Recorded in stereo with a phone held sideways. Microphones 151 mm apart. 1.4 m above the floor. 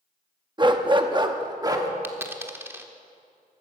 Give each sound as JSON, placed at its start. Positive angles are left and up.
{"t": 0.6, "sound": "a dog barking", "side_deg": -30, "distance_m": 0.9}
{"t": 2.0, "sound": "a dropped coin", "side_deg": -15, "distance_m": 1.1}